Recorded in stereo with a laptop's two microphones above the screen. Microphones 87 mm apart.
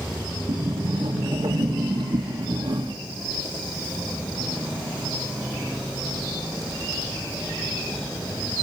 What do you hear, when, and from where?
0.5 s a sliding door: 75° right (ahead or behind), 1.6 m